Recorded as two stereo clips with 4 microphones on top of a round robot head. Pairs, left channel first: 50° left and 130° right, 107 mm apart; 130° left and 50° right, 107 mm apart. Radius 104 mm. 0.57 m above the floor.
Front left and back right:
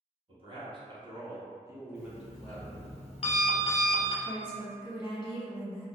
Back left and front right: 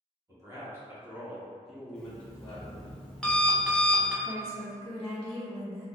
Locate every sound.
0.3 s a man speaking: 105° right, 1.3 m; by 2.9 s 110° left, 0.9 m
1.9 s an alarm clock: 45° left, 0.7 m
4.2 s a woman speaking: 45° left, 0.9 m